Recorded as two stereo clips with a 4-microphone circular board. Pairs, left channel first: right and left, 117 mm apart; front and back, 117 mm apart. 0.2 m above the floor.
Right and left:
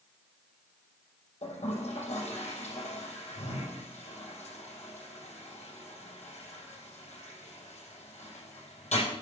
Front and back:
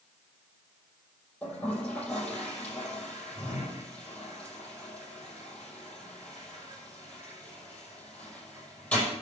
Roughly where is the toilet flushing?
Right.